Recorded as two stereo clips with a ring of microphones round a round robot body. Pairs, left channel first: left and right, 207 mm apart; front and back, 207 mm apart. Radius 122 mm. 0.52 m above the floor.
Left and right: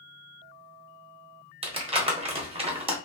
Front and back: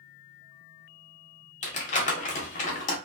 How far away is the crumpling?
About 1.6 m.